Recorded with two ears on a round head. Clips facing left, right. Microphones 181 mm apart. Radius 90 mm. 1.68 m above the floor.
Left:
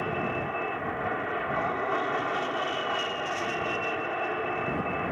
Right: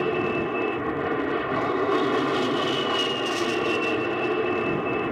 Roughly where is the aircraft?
Right.